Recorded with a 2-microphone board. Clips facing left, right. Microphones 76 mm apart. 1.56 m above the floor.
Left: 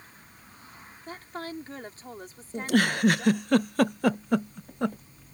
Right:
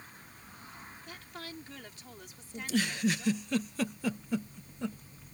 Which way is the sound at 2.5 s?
65° left (ahead or behind).